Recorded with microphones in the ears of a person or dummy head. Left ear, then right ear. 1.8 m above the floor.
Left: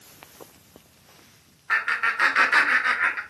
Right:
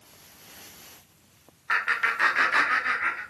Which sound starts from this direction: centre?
Laughter, at 1.7 s.